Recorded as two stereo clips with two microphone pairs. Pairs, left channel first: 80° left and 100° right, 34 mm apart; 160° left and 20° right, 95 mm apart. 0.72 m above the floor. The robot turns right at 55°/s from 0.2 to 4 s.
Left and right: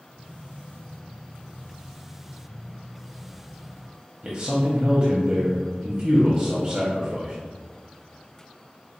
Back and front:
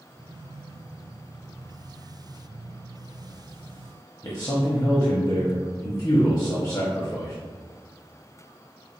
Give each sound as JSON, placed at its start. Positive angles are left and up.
{"t": 4.2, "sound": "a man speaking", "azimuth_deg": -165, "distance_m": 0.9}